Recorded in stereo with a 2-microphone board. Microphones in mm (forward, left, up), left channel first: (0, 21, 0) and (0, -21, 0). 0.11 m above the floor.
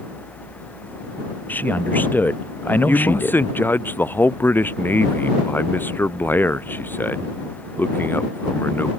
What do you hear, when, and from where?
1.5 s a man speaking: 50° left (ahead or behind)
2.9 s a man speaking: 55° left (ahead or behind)